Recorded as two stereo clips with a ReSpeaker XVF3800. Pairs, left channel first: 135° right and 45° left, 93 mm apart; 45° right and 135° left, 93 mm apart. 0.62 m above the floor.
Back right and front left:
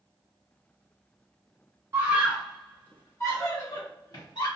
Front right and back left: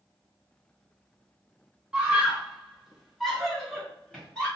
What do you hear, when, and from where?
1.9 s a scream: 70° left, 0.9 m; by 4.5 s 125° right, 1.5 m